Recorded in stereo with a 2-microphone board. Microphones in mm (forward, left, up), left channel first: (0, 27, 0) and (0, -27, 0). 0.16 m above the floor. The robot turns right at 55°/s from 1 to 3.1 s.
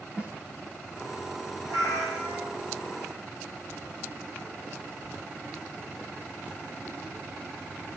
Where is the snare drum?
20° right (ahead or behind), 2.0 m.